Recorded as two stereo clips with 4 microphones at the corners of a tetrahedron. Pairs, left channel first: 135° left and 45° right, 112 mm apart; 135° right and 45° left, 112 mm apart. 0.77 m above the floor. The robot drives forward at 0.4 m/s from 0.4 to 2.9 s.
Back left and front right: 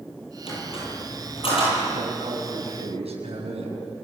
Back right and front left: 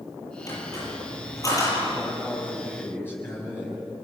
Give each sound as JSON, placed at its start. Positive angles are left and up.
{"t": 0.5, "sound": "a squeak", "azimuth_deg": 165, "distance_m": 10.0}
{"t": 1.9, "sound": "a man speaking", "azimuth_deg": -60, "distance_m": 6.0}